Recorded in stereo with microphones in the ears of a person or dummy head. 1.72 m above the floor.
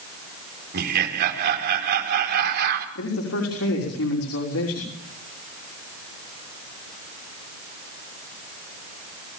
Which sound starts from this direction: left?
A man speaking, at 3.0 s.